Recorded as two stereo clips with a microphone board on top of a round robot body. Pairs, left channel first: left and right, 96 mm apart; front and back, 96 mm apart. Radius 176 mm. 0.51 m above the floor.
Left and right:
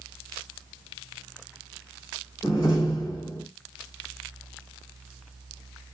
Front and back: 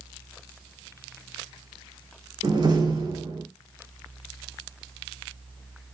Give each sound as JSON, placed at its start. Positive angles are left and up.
{"t": 2.4, "sound": "a door slam", "azimuth_deg": 150, "distance_m": 1.8}